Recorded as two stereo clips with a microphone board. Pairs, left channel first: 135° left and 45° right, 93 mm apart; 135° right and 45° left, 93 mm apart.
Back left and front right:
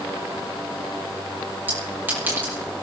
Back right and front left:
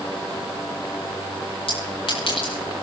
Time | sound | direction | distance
1.7 | a clink | 115° right | 8.5 m